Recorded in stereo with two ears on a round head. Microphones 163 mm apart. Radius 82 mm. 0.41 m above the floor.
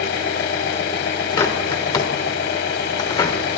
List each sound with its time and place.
0.0 s an engine running: 60° left (ahead or behind), 1.0 m
1.4 s a bird: 25° left (ahead or behind), 1.1 m